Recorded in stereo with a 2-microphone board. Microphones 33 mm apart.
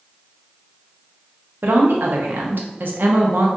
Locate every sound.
1.6 s a woman speaking: 70° right (ahead or behind), 0.8 m